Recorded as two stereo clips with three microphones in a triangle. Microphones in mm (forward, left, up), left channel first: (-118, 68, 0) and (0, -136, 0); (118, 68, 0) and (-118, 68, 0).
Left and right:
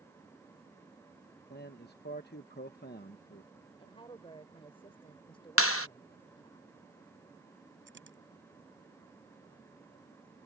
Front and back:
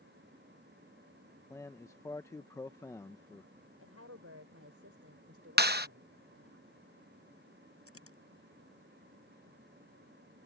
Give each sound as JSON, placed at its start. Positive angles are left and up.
{"t": 1.5, "sound": "a man speaking", "azimuth_deg": 80}
{"t": 3.8, "sound": "a woman speaking", "azimuth_deg": -170}
{"t": 5.6, "sound": "a clap", "azimuth_deg": 135}
{"t": 7.9, "sound": "a dropped coin", "azimuth_deg": -20}